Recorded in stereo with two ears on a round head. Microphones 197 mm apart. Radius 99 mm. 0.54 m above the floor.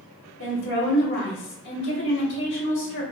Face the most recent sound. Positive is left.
turn(degrees=55)  # may be behind; listen again after turning